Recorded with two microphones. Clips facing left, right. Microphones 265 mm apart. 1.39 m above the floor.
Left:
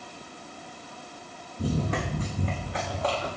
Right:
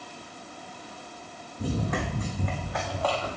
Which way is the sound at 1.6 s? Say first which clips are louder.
Left 1 dB; 35° left (ahead or behind).